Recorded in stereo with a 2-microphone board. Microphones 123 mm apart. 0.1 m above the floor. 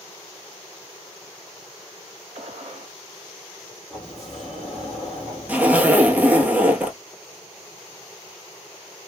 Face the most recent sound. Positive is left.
turn(degrees=-10)  # may be behind; listen again after turning